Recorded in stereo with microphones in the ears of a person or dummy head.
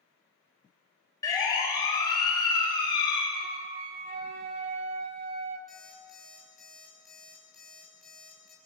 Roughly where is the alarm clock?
Centre.